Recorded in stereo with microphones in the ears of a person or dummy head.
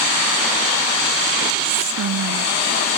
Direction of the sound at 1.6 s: 75° right (ahead or behind).